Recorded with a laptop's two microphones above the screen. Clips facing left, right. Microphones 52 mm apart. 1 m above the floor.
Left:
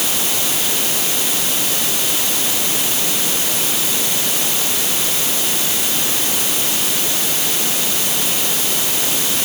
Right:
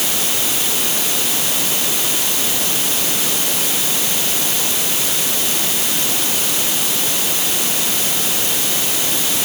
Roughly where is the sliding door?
I don't hear a sliding door.